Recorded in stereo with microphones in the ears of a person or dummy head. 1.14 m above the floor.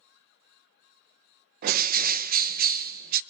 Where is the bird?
50° right (ahead or behind), 0.5 m.